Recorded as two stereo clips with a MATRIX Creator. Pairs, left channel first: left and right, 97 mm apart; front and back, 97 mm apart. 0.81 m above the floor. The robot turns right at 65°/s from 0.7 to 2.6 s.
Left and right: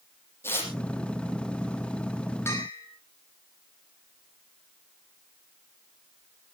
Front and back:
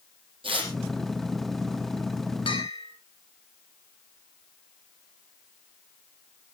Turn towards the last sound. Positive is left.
turn(degrees=35)